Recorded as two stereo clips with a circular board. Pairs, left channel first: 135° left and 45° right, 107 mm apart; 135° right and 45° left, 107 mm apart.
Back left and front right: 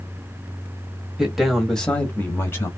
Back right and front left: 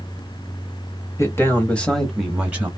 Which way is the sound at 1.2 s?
125° right.